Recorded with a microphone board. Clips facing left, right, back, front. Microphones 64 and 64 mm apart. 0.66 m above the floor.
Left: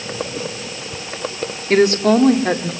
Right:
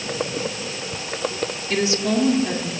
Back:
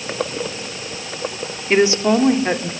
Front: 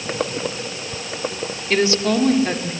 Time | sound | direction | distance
1.7 | a woman speaking | 120° left | 1.7 m